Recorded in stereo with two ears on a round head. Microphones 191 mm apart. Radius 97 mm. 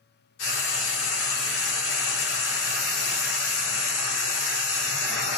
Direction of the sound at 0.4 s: 70° left (ahead or behind).